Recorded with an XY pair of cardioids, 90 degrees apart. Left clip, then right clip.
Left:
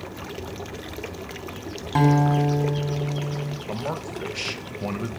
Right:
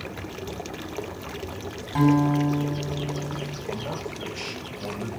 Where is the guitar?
60° left, 1.0 m.